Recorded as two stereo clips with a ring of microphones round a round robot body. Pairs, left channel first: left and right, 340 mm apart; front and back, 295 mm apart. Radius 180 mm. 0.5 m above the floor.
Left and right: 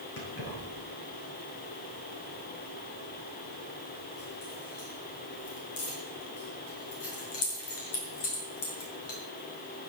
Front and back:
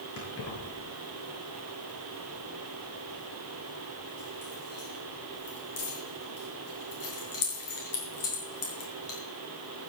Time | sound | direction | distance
0.2 | keys jangling | 40° left | 6.5 m